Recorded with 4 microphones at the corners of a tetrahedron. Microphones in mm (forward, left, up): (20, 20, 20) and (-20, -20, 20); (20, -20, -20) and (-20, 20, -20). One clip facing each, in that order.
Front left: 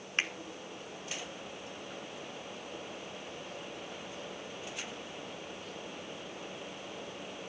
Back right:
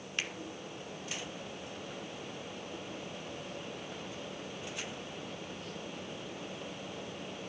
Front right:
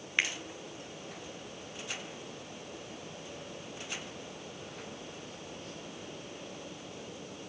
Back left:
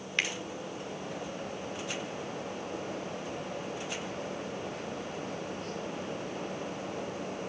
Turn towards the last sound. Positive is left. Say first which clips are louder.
# front left 5 dB, front right 1 dB
turn(degrees=20)